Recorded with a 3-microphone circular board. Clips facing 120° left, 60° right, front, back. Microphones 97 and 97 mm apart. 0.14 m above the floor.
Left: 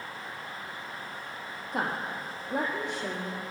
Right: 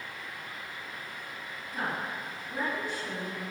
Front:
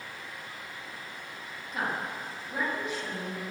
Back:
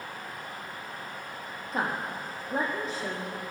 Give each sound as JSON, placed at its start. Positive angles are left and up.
{"t": 1.7, "sound": "a woman speaking", "azimuth_deg": 130, "distance_m": 5.5}